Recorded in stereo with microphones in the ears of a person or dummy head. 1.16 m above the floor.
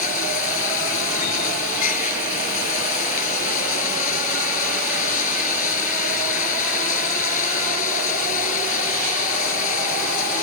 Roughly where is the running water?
Left.